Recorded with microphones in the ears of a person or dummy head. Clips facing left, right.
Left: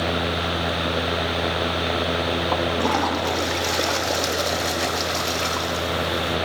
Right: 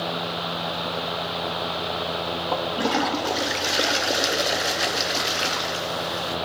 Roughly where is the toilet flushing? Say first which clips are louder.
Even; centre.